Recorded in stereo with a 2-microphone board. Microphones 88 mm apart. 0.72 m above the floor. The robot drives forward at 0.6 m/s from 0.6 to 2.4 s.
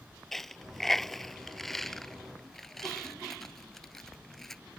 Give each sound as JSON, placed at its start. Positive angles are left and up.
{"t": 0.3, "sound": "a dropped coin", "side_deg": 0}